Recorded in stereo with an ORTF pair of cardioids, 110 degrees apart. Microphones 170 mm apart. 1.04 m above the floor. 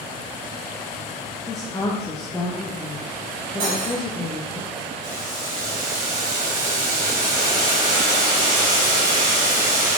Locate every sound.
1.5 s a woman speaking: 20° left, 0.6 m
3.6 s cutlery clinking: 60° right, 1.4 m
5.0 s boiling: 50° right, 1.3 m